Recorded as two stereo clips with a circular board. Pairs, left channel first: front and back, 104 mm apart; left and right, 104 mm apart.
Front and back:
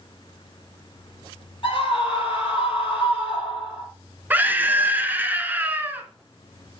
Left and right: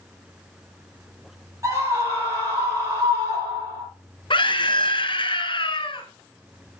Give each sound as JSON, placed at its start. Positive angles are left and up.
{"t": 1.6, "sound": "a scream", "azimuth_deg": -35, "distance_m": 6.0}
{"t": 4.3, "sound": "a scream", "azimuth_deg": 110, "distance_m": 1.8}